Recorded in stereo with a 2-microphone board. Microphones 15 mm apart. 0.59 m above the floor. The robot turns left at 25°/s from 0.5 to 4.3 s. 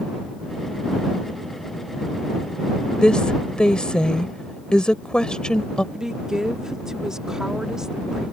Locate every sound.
3.0 s a woman speaking: 65° left (ahead or behind)
5.9 s a woman speaking: 40° right (ahead or behind)